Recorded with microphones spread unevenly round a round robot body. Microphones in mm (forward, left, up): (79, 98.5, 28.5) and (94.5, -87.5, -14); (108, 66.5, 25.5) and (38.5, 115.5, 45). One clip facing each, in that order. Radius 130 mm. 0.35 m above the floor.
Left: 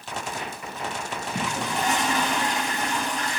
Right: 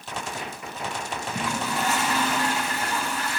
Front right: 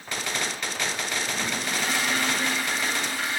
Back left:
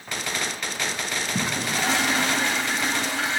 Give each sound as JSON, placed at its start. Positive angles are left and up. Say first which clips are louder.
{"t": 1.4, "sound": "a toilet flushing", "louder": "even, back left 3 dB", "azimuth_deg": 175, "distance_m": 0.9}